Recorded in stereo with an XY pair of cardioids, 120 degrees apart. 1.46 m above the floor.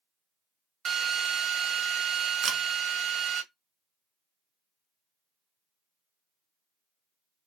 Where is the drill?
50° right, 0.8 m.